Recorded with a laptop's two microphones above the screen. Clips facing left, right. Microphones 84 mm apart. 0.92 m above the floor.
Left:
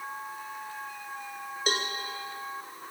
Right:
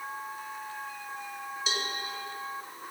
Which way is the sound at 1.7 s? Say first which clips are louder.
Left 5 dB; 55° left (ahead or behind).